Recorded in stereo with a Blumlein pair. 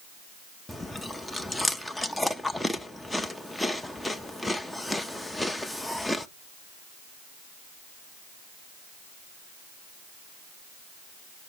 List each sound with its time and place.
0.7 s chewing: 5° left, 0.7 m